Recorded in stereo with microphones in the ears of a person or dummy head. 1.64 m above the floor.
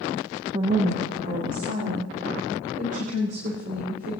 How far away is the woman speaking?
About 0.6 m.